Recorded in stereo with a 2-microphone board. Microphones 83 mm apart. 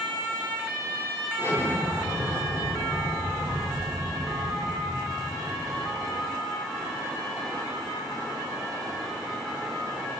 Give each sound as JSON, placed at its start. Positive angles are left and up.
{"t": 1.4, "sound": "an explosion", "side_deg": -30, "distance_m": 1.7}